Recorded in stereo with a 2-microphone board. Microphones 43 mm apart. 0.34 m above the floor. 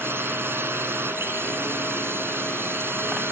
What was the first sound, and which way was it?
A drone, 65° right (ahead or behind).